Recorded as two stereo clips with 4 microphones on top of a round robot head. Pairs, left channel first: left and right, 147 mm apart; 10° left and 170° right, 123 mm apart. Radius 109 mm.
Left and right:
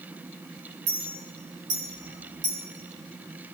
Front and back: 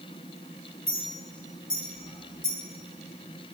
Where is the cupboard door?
No cupboard door in this recording.